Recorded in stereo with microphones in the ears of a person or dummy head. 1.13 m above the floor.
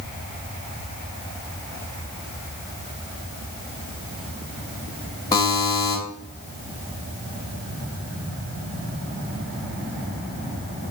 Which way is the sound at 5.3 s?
20° left (ahead or behind).